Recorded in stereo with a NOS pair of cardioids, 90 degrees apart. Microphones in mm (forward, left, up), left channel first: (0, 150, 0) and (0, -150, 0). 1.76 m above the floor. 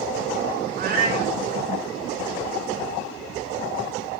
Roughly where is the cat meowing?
Ahead right.